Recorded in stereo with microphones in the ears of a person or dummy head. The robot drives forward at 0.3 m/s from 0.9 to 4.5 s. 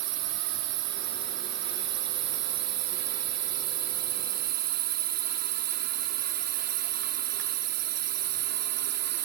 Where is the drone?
80° right; by 9.2 s 65° right (ahead or behind).